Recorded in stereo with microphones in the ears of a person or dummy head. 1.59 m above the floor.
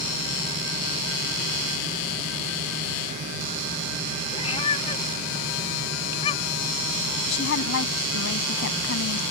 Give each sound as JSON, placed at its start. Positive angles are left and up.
{"t": 4.3, "sound": "a cat meowing", "side_deg": 35}
{"t": 7.3, "sound": "a woman speaking", "side_deg": 70}